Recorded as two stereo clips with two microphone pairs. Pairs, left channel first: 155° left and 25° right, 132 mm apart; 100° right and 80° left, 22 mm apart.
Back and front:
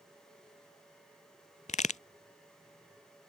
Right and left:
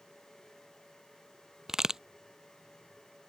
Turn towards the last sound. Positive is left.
turn(degrees=150)